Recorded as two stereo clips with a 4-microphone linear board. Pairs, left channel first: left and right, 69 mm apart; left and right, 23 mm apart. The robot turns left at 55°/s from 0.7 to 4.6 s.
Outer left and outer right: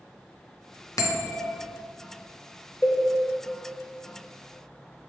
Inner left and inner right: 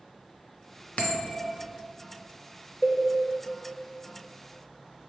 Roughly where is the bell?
Ahead left.